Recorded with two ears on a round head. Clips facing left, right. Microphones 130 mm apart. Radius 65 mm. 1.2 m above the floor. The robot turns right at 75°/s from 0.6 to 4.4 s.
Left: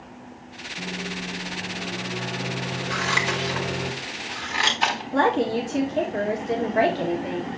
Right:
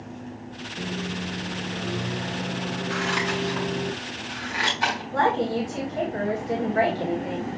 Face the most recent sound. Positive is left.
turn(degrees=30)  # may be behind; listen again after turning